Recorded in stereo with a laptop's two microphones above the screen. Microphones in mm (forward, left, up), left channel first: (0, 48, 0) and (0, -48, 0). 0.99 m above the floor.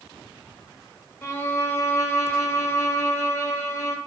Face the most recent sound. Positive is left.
turn(degrees=25)  # may be behind; listen again after turning